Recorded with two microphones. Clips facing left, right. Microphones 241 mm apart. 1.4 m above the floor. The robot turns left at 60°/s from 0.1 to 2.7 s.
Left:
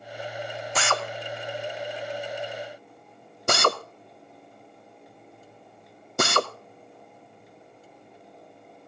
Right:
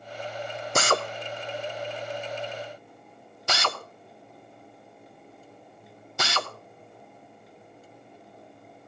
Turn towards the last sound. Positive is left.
turn(degrees=50)  # may be behind; listen again after turning